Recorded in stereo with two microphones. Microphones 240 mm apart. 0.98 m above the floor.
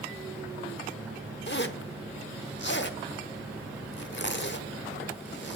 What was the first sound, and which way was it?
A zipper, 50° left (ahead or behind).